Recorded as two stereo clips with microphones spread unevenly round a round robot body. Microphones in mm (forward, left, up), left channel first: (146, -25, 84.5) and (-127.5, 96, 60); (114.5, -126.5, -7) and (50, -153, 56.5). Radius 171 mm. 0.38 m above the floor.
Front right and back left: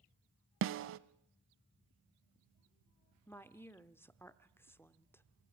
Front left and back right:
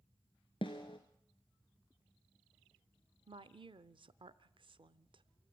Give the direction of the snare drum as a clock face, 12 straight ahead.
8 o'clock.